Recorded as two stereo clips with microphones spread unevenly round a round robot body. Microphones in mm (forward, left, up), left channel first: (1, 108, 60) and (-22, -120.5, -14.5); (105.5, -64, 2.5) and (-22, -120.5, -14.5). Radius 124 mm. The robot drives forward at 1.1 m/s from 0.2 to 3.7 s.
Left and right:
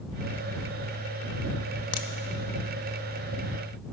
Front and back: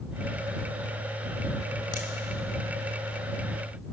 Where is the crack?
70° left, 0.8 m; by 2.1 s 80° left, 0.7 m.